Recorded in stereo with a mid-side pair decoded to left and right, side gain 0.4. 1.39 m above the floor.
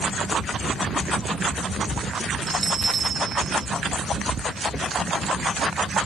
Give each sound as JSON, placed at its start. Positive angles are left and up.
{"t": 2.5, "sound": "a bell", "azimuth_deg": -35, "distance_m": 2.0}